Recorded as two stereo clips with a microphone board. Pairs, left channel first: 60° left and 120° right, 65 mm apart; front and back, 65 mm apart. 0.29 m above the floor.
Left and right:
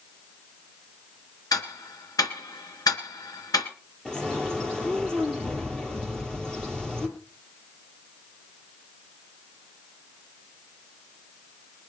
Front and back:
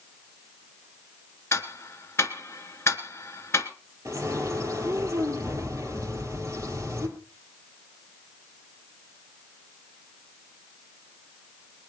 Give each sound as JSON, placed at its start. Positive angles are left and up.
{"t": 1.5, "sound": "ticking", "azimuth_deg": 45, "distance_m": 2.0}
{"t": 4.0, "sound": "a bird", "azimuth_deg": 140, "distance_m": 3.5}